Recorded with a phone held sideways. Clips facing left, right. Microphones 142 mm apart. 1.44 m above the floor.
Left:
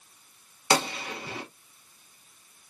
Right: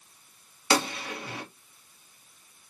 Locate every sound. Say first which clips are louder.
0.7 s a gunshot: even; 20° left (ahead or behind), 1.2 m